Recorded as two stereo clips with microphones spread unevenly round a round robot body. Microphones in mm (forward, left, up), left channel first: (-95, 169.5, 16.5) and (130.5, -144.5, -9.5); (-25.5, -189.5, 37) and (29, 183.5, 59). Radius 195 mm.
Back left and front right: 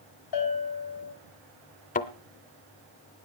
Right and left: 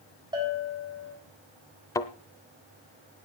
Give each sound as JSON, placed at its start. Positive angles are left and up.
{"t": 0.3, "sound": "a bell", "azimuth_deg": 160, "distance_m": 4.5}
{"t": 1.9, "sound": "a thud", "azimuth_deg": 180, "distance_m": 0.6}